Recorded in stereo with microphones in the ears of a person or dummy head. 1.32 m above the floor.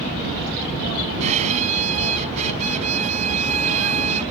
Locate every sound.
1.2 s a violin: 40° right (ahead or behind)